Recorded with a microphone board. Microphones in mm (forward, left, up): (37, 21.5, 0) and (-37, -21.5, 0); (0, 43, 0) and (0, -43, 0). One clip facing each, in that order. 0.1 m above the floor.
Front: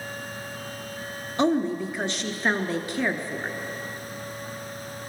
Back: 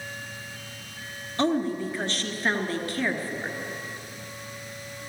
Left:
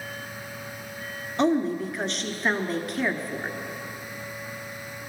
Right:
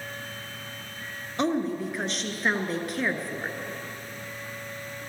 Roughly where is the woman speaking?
Ahead.